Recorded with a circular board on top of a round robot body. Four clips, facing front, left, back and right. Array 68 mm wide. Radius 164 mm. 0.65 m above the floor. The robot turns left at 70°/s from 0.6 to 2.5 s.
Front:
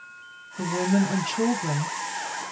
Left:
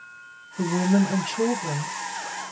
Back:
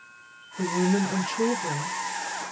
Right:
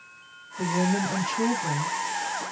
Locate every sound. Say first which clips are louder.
0.6 s a woman speaking: left 3 dB, front 1 dB; 80° left, 1.2 m; by 2.5 s 55° right, 1.2 m